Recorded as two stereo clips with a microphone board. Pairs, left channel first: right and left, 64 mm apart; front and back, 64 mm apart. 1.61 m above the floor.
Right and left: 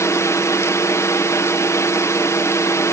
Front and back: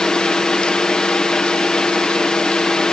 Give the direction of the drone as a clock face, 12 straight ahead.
3 o'clock.